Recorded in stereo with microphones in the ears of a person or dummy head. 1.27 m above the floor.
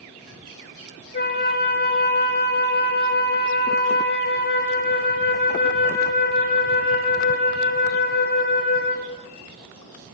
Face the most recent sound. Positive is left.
turn(degrees=50)  # may be behind; listen again after turning